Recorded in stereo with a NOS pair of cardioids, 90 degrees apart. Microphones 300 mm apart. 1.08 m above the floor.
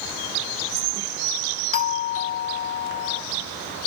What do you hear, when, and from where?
1.7 s a doorbell: 50° left, 1.9 m